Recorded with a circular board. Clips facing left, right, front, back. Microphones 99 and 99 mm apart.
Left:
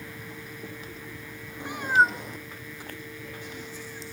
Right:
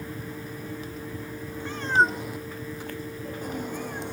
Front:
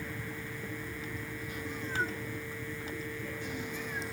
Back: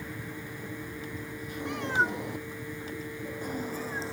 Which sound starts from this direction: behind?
A cat meowing, at 1.6 s.